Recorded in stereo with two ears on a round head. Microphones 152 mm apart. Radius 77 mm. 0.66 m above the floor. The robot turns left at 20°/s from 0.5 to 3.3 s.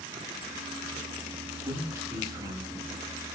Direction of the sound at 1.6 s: 15° right (ahead or behind).